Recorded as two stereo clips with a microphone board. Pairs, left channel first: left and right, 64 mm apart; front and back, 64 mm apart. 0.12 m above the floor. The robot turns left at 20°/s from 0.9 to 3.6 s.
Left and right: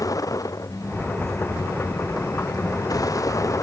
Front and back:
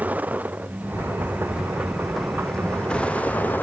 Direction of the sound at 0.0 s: 115° left.